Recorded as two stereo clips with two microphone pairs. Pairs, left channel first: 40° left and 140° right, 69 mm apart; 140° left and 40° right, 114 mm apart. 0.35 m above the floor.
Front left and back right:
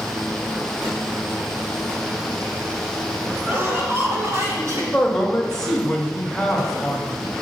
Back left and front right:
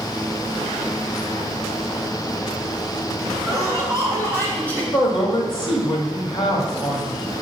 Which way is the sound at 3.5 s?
Straight behind.